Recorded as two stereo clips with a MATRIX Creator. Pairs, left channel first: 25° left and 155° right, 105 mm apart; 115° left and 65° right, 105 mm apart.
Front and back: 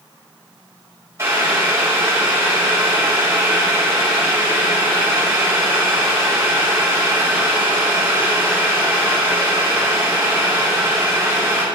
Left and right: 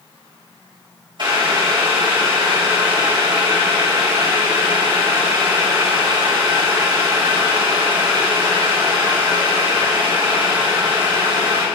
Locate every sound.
1.2 s boiling: 100° right, 2.5 m